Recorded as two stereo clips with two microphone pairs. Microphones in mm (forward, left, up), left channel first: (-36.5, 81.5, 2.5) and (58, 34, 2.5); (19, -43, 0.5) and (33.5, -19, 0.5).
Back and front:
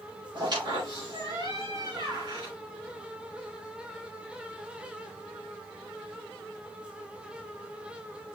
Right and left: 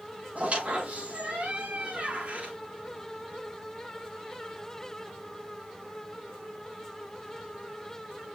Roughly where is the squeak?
Ahead.